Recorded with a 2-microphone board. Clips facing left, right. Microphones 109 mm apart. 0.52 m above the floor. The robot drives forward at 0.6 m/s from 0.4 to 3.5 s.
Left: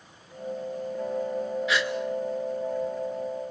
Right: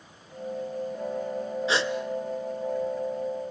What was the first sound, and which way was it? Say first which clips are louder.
A gasp: right 3 dB; 30° right (ahead or behind).